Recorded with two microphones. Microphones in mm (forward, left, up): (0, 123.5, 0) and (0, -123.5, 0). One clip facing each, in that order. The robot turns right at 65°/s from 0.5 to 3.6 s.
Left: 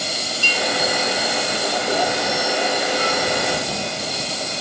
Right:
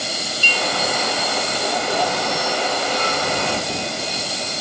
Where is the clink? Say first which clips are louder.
Left 1 dB; 40° right (ahead or behind); by 0.7 s 35° right (ahead or behind).